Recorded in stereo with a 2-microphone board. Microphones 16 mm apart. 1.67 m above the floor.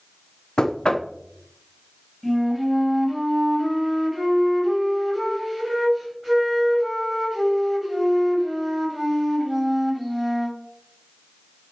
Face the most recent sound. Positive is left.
turn(degrees=-5)  # may be behind; listen again after turning